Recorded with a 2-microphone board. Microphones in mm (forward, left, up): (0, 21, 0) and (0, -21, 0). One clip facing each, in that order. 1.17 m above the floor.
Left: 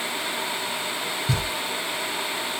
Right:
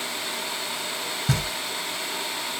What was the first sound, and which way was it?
Knocking, 75° right (ahead or behind).